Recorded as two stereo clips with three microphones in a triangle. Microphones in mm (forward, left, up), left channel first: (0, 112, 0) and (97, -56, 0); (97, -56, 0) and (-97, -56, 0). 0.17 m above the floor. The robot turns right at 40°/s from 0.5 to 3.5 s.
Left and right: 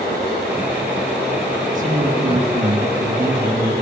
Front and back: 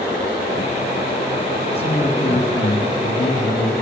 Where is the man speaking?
45° right, 2 m; by 3.7 s 25° left, 2 m.